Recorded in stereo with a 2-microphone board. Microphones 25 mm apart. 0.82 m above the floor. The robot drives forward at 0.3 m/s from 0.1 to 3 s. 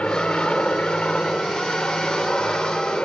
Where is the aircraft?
55° left (ahead or behind).